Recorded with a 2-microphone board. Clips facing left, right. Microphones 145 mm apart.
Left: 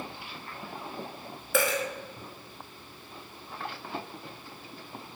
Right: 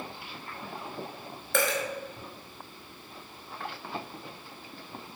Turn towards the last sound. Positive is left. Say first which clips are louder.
# left 1 dB
turn(degrees=5)  # may be behind; listen again after turning